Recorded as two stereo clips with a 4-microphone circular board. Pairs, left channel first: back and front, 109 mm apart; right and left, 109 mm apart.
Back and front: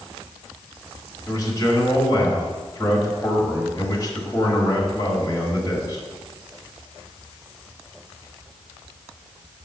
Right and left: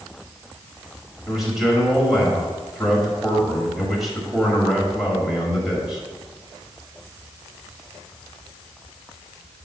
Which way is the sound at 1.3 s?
175° left.